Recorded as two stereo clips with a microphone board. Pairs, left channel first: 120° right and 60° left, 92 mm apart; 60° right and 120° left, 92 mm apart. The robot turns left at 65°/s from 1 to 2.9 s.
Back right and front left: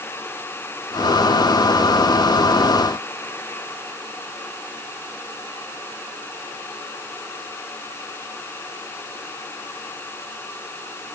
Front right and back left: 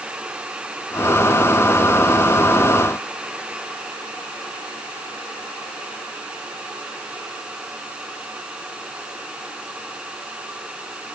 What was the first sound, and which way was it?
Only background noise.